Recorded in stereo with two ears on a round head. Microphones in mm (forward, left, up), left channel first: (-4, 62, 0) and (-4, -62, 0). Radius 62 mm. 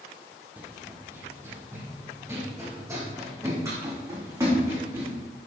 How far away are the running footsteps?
About 1.7 m.